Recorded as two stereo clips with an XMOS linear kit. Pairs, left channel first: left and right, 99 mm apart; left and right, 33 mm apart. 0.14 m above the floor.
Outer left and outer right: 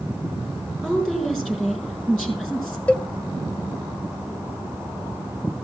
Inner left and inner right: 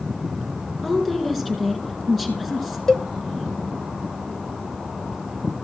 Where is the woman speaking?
5° left (ahead or behind), 4.5 m.